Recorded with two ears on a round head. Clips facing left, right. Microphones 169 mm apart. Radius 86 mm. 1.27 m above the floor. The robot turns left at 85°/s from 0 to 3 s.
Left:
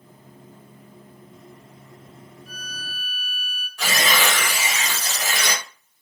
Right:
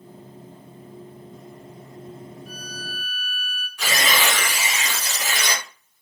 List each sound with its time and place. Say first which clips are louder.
2.5 s a violin: right 4 dB; 175° right, 1.9 m; by 3.7 s 140° left, 1.9 m
3.8 s tearing paper: left 1 dB; 30° left (ahead or behind), 1.4 m